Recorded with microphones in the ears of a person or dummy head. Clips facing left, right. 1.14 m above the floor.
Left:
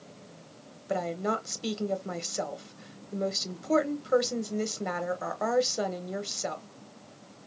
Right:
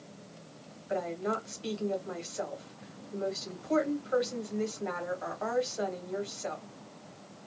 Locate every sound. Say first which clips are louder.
0.9 s a woman speaking: left 2 dB; 55° left (ahead or behind), 1.1 m